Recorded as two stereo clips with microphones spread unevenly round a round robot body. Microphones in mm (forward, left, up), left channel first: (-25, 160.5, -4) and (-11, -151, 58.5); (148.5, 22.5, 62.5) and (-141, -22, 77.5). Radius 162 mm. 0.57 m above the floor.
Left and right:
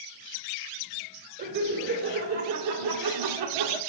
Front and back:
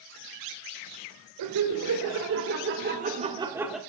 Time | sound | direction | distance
1.4 | laughter | 150° right | 3 m